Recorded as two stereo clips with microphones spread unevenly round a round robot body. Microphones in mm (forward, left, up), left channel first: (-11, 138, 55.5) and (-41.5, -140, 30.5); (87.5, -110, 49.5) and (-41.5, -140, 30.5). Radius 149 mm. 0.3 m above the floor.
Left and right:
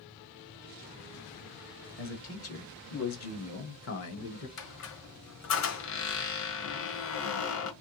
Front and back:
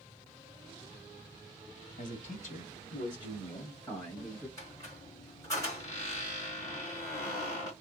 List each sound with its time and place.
2.0 s a man speaking: 40° left, 1.8 m; by 4.5 s 115° left, 1.4 m
4.6 s a squeak: 85° left, 1.6 m